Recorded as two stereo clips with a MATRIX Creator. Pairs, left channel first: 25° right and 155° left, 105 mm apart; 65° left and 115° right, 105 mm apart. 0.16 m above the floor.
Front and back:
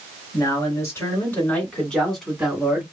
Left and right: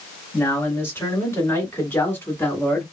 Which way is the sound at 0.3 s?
10° left.